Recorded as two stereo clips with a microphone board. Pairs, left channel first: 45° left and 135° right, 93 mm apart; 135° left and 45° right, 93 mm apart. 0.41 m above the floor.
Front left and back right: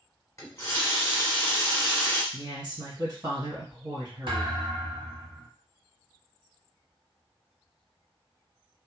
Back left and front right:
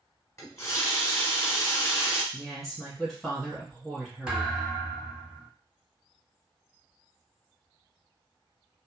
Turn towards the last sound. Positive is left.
turn(degrees=-125)